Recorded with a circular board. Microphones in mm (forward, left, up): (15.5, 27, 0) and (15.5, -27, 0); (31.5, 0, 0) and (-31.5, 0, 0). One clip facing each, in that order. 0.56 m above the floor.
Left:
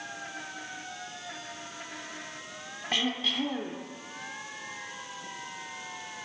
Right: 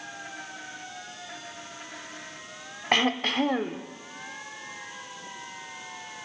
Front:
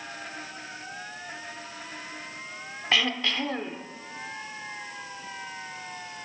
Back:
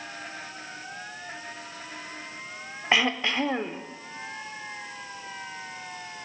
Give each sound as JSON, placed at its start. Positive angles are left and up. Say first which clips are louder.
{"t": 2.9, "sound": "throat clearing", "louder": "right 6 dB, back 2 dB", "azimuth_deg": -115, "distance_m": 0.7}